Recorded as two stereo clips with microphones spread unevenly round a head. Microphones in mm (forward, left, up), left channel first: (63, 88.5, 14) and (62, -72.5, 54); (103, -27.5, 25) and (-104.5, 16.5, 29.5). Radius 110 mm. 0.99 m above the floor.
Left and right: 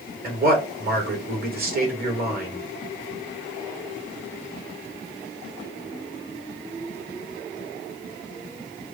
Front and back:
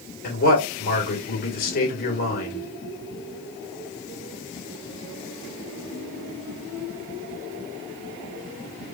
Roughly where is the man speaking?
Ahead right.